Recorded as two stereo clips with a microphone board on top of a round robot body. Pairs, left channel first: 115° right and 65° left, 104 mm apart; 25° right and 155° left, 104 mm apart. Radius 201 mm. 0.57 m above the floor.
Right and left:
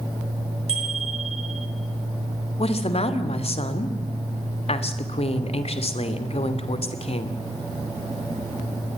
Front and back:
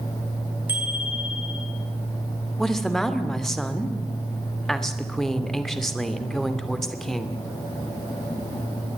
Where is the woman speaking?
110° right, 2.5 m.